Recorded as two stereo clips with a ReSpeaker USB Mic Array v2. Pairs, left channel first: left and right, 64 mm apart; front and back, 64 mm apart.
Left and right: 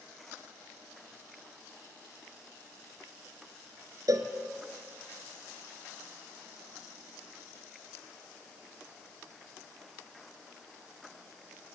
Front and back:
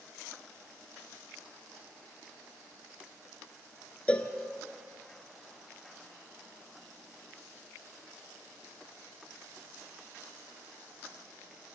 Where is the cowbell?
70° right, 1.6 m.